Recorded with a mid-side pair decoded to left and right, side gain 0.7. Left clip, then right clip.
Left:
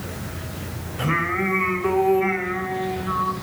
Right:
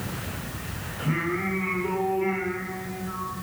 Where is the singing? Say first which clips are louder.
Left 6 dB; 70° left, 1.9 m.